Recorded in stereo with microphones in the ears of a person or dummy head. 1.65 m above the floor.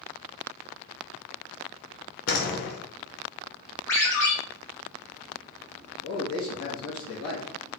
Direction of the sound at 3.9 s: 5° left (ahead or behind).